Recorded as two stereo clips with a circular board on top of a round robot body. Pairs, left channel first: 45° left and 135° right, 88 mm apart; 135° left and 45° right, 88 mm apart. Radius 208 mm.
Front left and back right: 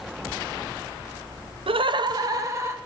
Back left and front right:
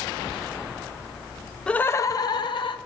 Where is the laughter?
145° right, 0.6 m; by 2.8 s 165° left, 1.2 m.